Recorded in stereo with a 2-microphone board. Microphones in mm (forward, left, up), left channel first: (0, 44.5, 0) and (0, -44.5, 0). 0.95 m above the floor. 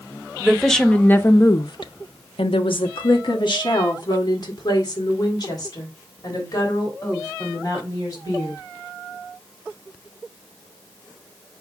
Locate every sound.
0.4 s a woman speaking: centre (ahead or behind), 1.1 m; by 8.6 s 45° left (ahead or behind), 5 m